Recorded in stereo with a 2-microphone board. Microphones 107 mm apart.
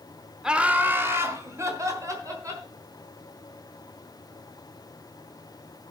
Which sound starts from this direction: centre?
Laughter, at 0.4 s.